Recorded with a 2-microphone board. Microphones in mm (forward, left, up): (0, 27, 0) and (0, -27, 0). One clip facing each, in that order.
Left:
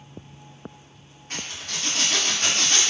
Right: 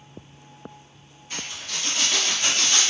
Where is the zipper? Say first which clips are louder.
Even; 55° left (ahead or behind), 1.2 m.